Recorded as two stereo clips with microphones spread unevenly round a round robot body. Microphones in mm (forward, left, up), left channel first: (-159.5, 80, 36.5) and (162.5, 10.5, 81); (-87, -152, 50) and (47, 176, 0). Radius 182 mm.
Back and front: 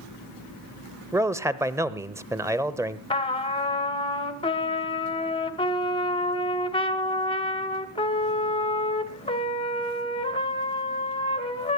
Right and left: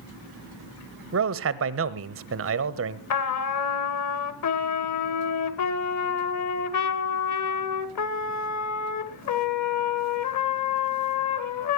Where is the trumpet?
135° right, 1.8 m.